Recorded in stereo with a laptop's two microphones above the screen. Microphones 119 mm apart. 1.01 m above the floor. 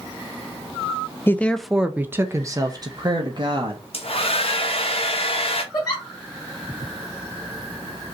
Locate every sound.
1.3 s a woman speaking: 20° left (ahead or behind), 0.6 m; by 3.8 s 45° right (ahead or behind), 1.6 m
3.9 s a hair dryer: 60° left (ahead or behind), 1.0 m
5.7 s a giggle: 35° left (ahead or behind), 1.6 m